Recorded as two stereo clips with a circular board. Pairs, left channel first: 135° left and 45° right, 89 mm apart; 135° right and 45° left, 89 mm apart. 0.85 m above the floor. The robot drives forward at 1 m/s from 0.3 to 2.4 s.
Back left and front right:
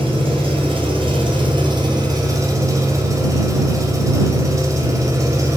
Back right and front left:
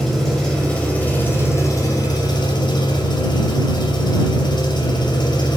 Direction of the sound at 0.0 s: 45° right.